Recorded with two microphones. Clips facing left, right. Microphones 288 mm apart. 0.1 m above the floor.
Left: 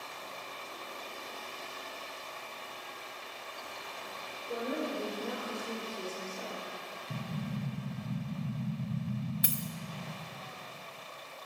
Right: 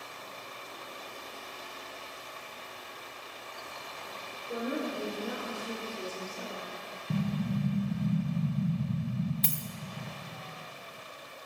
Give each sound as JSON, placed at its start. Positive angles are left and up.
{"t": 4.5, "sound": "a woman speaking", "side_deg": -5, "distance_m": 2.0}
{"t": 7.1, "sound": "an explosion", "side_deg": -30, "distance_m": 0.9}
{"t": 9.4, "sound": "a dropped coin", "side_deg": 10, "distance_m": 0.6}